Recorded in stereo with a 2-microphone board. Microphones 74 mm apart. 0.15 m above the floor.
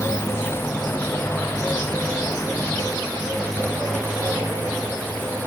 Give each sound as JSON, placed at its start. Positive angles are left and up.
{"t": 0.0, "sound": "a motorcycle", "side_deg": 30}